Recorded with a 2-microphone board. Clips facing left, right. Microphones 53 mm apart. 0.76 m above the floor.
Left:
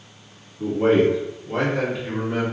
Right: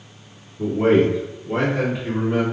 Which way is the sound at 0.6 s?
45° right (ahead or behind).